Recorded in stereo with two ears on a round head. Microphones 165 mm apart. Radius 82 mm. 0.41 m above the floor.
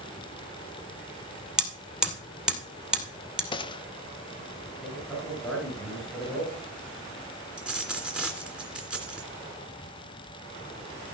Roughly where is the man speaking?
Centre.